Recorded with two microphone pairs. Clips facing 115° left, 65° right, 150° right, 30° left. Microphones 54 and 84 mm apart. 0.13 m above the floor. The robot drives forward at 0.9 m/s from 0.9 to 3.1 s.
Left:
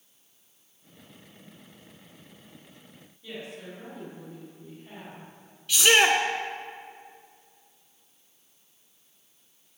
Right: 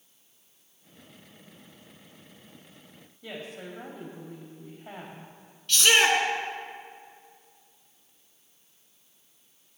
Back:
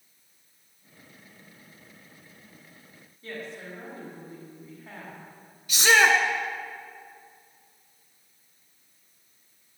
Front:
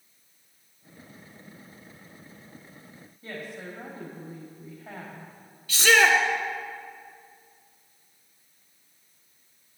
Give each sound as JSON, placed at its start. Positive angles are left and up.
{"t": 3.2, "sound": "a woman speaking", "azimuth_deg": -50, "distance_m": 4.5}
{"t": 5.7, "sound": "a shout", "azimuth_deg": 175, "distance_m": 1.1}